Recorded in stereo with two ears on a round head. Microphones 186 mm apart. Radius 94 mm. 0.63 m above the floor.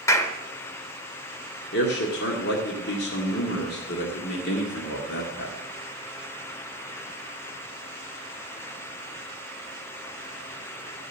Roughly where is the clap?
Centre.